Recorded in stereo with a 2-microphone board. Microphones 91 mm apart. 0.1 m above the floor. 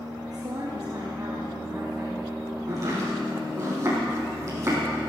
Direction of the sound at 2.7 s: 35° right (ahead or behind).